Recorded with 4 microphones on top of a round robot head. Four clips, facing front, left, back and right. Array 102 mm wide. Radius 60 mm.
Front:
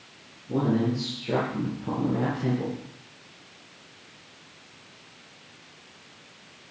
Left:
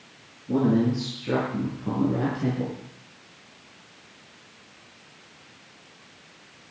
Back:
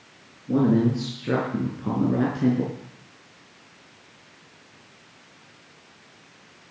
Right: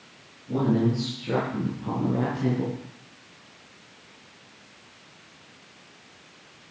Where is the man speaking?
150° left, 5.5 m; by 2.8 s straight behind, 5 m.